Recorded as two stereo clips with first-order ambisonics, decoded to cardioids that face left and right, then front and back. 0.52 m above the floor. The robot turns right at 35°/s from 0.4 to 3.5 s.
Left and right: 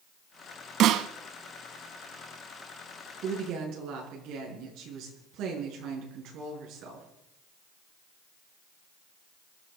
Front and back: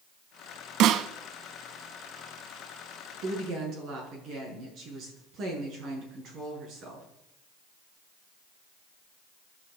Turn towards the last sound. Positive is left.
turn(degrees=-130)